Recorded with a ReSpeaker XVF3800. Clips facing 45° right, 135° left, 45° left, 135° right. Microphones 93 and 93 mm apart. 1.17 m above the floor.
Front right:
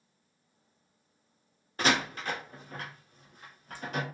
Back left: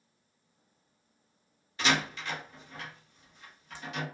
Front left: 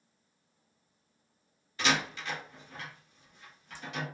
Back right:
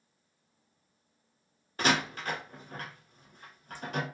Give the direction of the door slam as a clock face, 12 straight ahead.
3 o'clock.